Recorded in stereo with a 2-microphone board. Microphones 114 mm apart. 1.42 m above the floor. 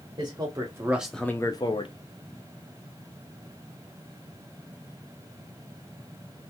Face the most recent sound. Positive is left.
turn(degrees=55)  # may be behind; listen again after turning